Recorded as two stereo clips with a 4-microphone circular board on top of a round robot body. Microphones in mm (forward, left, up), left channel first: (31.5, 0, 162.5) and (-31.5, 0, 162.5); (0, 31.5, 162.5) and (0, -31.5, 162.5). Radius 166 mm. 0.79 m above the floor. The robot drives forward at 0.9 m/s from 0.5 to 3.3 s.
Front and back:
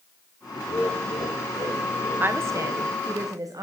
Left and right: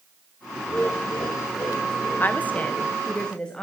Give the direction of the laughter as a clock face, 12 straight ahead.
11 o'clock.